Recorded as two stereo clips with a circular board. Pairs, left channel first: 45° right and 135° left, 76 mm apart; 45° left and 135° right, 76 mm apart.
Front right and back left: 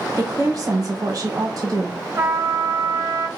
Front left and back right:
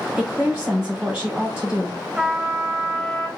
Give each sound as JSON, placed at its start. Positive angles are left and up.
{"t": 0.2, "sound": "a woman speaking", "azimuth_deg": 145, "distance_m": 1.7}
{"t": 2.1, "sound": "a trumpet", "azimuth_deg": 145, "distance_m": 0.6}